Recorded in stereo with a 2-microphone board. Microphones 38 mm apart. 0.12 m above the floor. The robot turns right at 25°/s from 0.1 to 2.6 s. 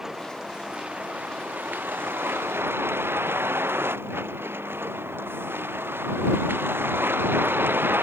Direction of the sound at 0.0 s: 15° right (ahead or behind).